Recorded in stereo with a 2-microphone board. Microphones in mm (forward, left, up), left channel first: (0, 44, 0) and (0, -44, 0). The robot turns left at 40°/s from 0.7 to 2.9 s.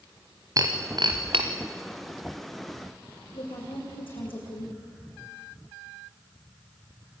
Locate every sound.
0.6 s breaking glass: 45° right (ahead or behind), 2.5 m; by 1.4 s 75° right (ahead or behind), 2.5 m
3.3 s a woman speaking: 75° left (ahead or behind), 9.5 m